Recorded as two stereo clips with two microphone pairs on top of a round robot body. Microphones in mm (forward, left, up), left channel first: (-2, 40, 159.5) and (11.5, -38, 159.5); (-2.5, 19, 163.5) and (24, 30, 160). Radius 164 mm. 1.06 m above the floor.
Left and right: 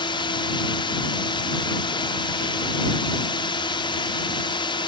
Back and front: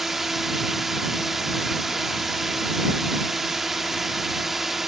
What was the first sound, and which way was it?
A drone, 105° left.